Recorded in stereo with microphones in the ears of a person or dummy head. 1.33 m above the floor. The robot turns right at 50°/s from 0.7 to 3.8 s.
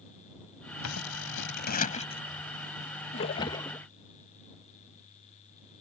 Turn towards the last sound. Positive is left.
turn(degrees=170)